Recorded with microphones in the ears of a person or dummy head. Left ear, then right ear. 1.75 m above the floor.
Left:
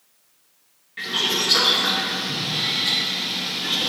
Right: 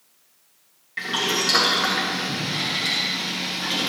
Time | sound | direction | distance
1.0 | boiling | 35° right (ahead or behind) | 2.0 m